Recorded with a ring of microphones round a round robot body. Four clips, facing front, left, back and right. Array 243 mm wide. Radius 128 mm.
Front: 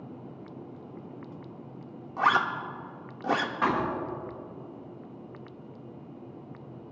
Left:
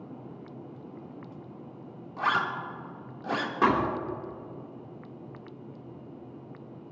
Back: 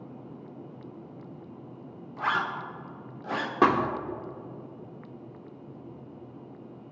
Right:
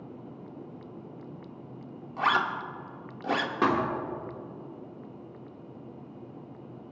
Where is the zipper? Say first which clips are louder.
Right 1 dB, front 4 dB; 20° right, 1.6 m.